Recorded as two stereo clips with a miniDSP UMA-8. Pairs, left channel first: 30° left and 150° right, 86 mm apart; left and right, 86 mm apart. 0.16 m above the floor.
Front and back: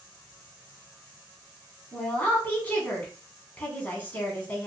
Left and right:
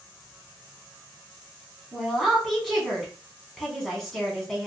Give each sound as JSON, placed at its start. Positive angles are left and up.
{"t": 1.9, "sound": "a woman speaking", "azimuth_deg": 5, "distance_m": 1.0}